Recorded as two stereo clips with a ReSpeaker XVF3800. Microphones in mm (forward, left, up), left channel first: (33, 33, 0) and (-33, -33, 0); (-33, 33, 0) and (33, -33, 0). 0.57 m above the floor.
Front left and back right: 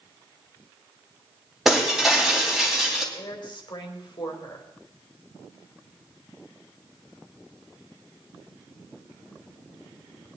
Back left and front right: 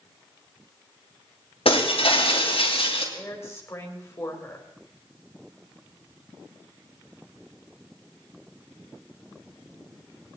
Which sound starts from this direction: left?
A woman speaking, at 3.1 s.